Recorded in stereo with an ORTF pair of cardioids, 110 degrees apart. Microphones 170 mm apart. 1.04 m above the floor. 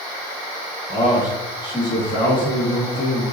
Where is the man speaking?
30° left, 1.4 m.